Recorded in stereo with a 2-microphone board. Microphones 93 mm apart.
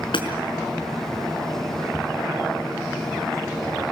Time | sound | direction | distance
0.1 | hammering | 75° left (ahead or behind) | 5.5 m